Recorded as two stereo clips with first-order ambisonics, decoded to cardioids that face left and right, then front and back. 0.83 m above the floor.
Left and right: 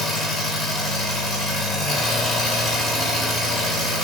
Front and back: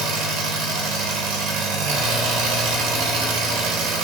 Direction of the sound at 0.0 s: 175° left.